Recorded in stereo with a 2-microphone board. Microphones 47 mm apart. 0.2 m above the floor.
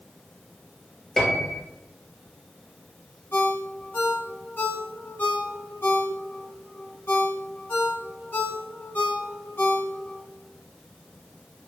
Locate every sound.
1.2 s a piano: 5° left (ahead or behind), 1.1 m
3.3 s a ringtone: 50° left (ahead or behind), 1.5 m